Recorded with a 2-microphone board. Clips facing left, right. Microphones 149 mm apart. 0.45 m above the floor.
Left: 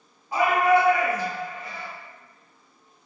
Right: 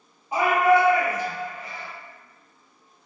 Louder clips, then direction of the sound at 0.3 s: Right 1 dB; 20° right (ahead or behind).